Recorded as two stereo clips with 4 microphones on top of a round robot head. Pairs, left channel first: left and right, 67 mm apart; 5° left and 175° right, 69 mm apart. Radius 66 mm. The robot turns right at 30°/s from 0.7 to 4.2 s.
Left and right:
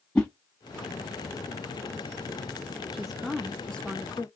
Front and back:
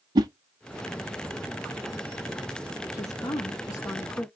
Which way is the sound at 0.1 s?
170° left.